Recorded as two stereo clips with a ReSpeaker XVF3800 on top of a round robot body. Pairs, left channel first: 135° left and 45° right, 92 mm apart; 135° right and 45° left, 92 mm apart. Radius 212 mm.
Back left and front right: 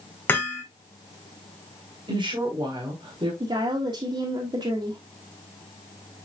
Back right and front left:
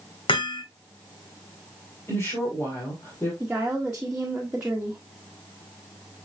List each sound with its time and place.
0.3 s hammering: 155° right, 2 m
2.1 s a woman speaking: 70° right, 4 m
3.4 s a woman speaking: 35° right, 2.0 m